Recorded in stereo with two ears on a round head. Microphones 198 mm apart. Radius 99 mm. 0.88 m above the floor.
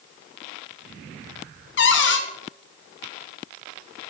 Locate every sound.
1.8 s a cupboard door: 60° left (ahead or behind), 0.9 m